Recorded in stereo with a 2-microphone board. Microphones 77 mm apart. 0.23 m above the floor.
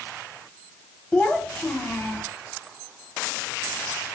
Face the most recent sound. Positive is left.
turn(degrees=20)  # may be behind; listen again after turning